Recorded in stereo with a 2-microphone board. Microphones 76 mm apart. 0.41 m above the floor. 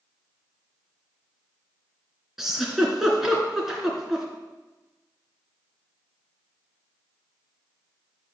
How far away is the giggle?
About 2.5 m.